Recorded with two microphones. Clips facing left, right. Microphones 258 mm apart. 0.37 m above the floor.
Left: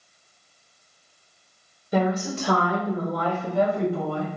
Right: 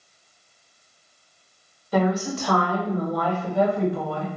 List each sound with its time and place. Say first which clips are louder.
1.9 s a woman speaking: right 1 dB; 20° left (ahead or behind), 1.0 m; by 4.3 s 35° left (ahead or behind), 2.5 m